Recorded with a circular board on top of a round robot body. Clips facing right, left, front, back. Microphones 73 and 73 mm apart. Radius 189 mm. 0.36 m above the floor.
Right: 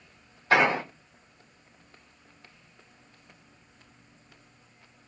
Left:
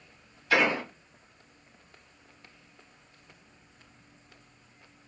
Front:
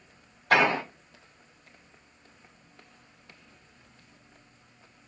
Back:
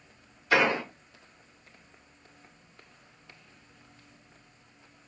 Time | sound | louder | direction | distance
0.5 | an explosion | right 3 dB, front 2 dB | 35° right | 3 m